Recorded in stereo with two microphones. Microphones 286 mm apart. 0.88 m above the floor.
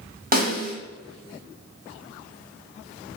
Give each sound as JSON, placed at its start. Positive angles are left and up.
{"t": 0.3, "sound": "a snare drum", "side_deg": -30, "distance_m": 0.7}